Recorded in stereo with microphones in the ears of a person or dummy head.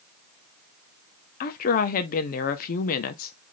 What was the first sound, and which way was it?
A woman speaking, 45° left (ahead or behind).